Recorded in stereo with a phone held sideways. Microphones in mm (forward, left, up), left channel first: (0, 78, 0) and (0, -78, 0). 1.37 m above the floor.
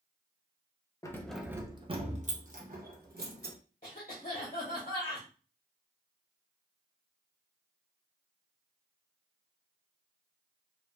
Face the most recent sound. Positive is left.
turn(degrees=50)  # may be behind; listen again after turning